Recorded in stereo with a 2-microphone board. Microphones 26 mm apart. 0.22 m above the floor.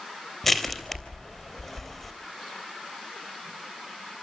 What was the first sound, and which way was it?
Crushing, 10° left (ahead or behind).